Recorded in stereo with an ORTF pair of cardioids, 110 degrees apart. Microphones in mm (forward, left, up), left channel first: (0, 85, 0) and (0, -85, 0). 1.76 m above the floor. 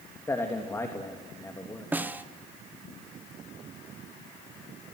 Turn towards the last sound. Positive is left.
turn(degrees=-10)